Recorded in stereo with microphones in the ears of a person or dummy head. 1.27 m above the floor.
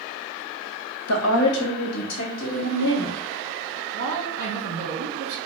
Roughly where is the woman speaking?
Left.